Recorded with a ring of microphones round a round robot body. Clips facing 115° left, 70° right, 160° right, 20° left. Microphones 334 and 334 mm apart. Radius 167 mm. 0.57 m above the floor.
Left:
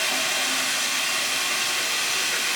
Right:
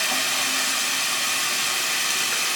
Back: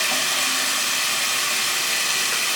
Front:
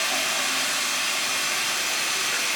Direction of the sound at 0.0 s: 120° right.